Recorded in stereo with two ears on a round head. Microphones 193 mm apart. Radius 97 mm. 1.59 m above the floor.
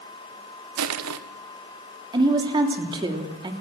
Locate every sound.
0.8 s crushing: 85° right, 1.4 m
2.1 s a woman speaking: 20° right (ahead or behind), 3 m